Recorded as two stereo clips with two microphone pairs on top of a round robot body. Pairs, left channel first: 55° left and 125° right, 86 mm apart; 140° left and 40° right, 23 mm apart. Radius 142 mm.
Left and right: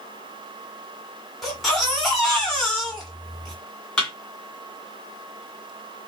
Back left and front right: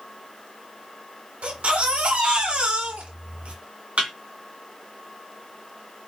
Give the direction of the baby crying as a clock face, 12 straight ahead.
1 o'clock.